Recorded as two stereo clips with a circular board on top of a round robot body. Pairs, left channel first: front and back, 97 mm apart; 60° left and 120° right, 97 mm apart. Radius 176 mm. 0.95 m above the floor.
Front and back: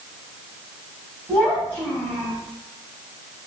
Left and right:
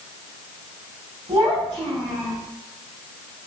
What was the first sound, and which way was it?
A child speaking, 80° right.